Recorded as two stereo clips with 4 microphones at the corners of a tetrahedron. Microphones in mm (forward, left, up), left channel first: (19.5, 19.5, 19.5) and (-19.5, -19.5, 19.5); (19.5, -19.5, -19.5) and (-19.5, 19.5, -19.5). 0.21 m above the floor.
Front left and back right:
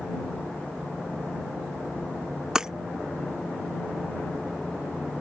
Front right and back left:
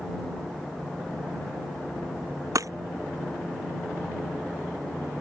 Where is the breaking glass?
145° left.